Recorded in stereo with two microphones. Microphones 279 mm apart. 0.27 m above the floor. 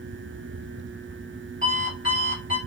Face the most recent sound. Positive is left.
turn(degrees=30)  # may be behind; listen again after turning